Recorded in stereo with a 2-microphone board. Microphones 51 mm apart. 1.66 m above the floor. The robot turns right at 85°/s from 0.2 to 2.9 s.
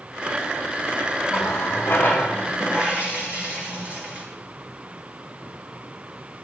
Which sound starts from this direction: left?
A running tap, at 1.3 s.